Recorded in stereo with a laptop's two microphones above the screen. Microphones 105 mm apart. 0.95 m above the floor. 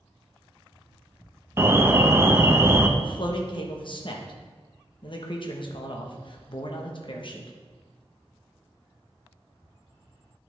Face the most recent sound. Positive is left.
turn(degrees=50)  # may be behind; listen again after turning